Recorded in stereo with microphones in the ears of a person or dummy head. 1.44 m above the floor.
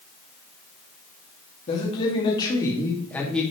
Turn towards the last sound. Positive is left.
turn(degrees=0)  # may be behind; listen again after turning